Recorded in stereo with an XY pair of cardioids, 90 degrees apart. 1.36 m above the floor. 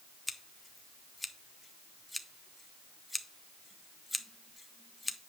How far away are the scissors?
About 0.9 m.